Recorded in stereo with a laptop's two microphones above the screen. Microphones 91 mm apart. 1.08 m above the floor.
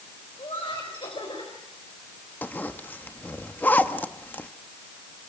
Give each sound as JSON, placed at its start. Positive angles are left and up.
{"t": 0.4, "sound": "laughter", "side_deg": 75, "distance_m": 4.5}
{"t": 2.4, "sound": "a zipper", "side_deg": 20, "distance_m": 1.3}